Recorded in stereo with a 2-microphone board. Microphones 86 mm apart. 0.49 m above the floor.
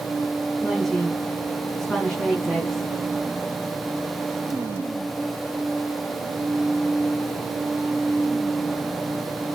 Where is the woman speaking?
5° left (ahead or behind), 5.5 m.